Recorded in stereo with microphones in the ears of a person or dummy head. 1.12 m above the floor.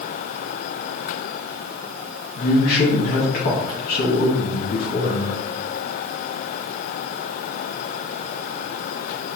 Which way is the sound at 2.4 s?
55° left (ahead or behind).